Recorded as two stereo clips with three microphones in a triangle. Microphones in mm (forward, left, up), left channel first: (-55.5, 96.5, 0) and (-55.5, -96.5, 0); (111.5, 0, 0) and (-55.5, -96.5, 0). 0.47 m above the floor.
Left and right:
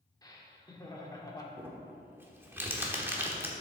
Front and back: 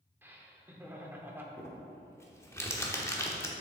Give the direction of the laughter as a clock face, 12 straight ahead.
7 o'clock.